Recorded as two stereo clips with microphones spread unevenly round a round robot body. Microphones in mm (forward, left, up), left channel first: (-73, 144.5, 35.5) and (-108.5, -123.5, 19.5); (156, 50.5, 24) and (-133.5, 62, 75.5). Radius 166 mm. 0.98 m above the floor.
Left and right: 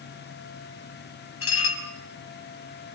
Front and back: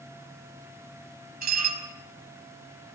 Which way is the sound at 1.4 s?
120° left.